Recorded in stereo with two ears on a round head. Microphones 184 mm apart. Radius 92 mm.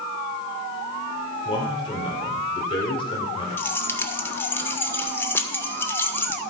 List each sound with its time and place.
1.4 s a man speaking: 25° left (ahead or behind), 2.5 m
3.6 s keys jangling: 10° left (ahead or behind), 0.8 m